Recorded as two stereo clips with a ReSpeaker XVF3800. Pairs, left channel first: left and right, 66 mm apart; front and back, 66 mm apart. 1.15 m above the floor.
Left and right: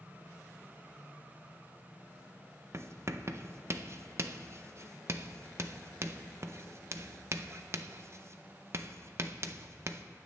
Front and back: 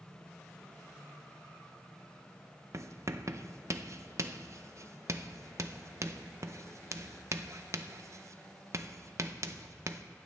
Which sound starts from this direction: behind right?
Writing, at 2.7 s.